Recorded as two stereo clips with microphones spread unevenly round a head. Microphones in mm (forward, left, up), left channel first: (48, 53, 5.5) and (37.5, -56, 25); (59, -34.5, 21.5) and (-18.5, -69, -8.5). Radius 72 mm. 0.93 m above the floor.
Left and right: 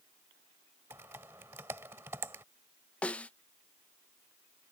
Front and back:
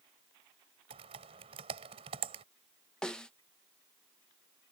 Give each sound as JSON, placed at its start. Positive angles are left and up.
{"t": 0.9, "sound": "typing on a keyboard", "azimuth_deg": -170}
{"t": 3.0, "sound": "a snare drum", "azimuth_deg": 135}